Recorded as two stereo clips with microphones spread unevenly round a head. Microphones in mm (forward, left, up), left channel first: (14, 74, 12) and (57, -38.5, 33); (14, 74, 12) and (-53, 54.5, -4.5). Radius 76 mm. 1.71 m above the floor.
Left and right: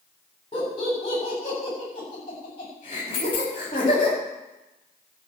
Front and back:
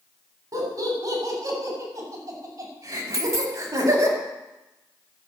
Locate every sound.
0.5 s laughter: 165° left, 7.5 m
3.1 s a dropped coin: 165° left, 2.0 m